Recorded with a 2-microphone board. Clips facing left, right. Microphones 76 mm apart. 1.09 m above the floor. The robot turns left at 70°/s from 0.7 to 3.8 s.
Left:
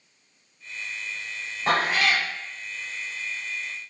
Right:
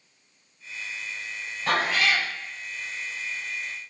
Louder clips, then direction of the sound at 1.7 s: Left 1 dB; 145° left.